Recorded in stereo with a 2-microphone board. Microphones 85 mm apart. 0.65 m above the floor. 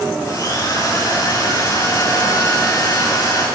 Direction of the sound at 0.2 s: 40° left (ahead or behind).